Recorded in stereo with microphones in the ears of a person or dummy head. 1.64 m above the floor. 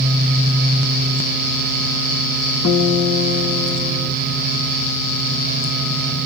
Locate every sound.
2.6 s a guitar: 70° left (ahead or behind), 2.5 m